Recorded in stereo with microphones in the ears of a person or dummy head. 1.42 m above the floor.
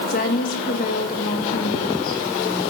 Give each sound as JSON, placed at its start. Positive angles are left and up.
{"t": 0.1, "sound": "a woman speaking", "side_deg": 50, "distance_m": 2.0}